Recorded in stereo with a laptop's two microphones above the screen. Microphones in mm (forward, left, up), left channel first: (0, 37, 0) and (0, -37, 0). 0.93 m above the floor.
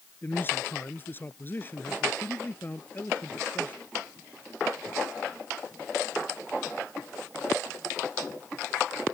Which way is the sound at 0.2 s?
30° left (ahead or behind).